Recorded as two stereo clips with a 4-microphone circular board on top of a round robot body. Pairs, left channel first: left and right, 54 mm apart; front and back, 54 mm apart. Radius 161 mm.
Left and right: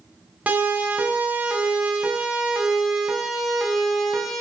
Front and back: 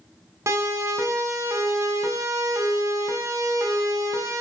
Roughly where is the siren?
Behind right.